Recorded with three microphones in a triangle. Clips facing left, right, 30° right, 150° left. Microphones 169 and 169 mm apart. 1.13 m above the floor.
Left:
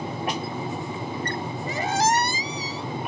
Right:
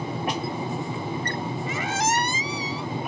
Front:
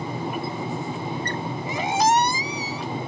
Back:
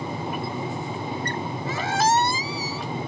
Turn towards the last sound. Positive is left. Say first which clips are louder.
# left 5 dB, front 2 dB
turn(degrees=40)